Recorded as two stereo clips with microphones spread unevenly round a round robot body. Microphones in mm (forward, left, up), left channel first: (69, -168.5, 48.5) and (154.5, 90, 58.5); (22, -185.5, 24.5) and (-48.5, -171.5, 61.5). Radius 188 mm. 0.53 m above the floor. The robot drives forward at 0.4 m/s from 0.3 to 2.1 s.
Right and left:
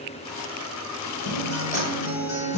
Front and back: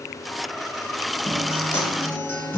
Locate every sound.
1.2 s a guitar: 55° right, 1.3 m; by 2.6 s 70° right, 1.2 m